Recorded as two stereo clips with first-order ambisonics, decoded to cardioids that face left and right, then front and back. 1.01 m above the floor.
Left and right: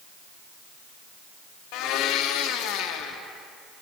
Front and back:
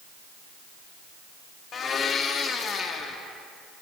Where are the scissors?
I don't hear scissors.